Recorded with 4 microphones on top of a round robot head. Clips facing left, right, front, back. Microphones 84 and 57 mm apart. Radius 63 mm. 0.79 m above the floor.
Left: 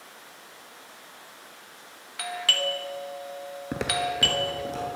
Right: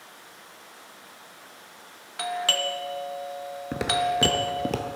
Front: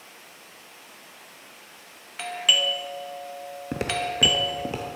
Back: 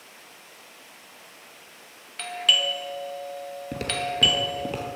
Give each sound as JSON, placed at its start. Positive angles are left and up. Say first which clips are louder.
{"t": 2.2, "sound": "a doorbell", "louder": "right 2 dB, even", "azimuth_deg": -65, "distance_m": 1.2}
{"t": 3.7, "sound": "footsteps", "louder": "right 3 dB, front 2 dB", "azimuth_deg": 15, "distance_m": 0.7}